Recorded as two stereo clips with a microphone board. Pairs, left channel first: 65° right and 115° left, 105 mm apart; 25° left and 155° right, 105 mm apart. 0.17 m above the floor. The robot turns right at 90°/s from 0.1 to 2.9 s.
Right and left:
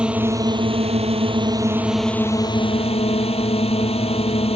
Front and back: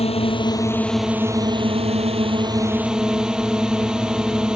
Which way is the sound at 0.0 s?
30° left.